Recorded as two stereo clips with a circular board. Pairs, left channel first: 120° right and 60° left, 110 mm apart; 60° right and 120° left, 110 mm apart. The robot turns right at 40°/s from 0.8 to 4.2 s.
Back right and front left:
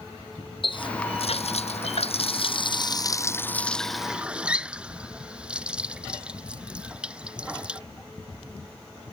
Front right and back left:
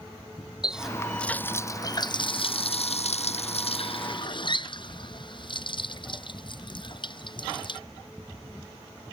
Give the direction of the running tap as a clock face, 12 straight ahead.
5 o'clock.